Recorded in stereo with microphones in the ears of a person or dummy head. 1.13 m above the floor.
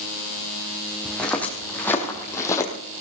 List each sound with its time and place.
1.1 s footsteps: centre (ahead or behind), 3 m; by 2.7 s 15° left (ahead or behind), 2.5 m